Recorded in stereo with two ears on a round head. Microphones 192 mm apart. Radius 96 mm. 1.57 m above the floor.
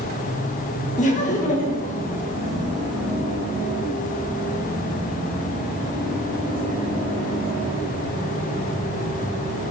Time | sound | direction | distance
1.0 | laughter | 35° left (ahead or behind) | 2 m